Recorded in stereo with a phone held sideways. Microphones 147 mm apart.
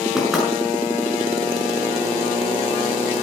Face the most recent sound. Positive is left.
turn(degrees=-5)  # may be behind; listen again after turning